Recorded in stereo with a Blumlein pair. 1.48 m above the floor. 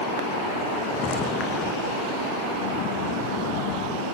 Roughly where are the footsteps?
Ahead left.